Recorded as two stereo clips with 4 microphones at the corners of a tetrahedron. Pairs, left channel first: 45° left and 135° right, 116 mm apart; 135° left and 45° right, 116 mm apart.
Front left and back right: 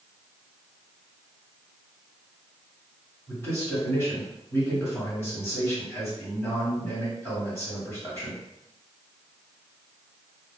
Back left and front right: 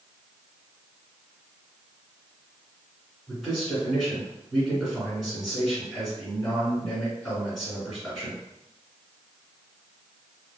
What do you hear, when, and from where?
3.3 s a man speaking: 40° left, 1.6 m